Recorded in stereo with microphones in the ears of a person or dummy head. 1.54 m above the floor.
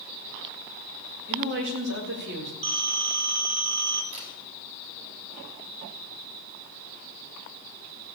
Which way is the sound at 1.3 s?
65° right (ahead or behind).